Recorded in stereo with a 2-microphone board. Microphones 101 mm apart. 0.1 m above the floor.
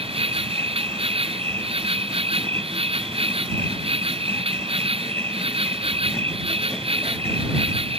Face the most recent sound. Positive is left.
turn(degrees=-70)  # may be behind; listen again after turning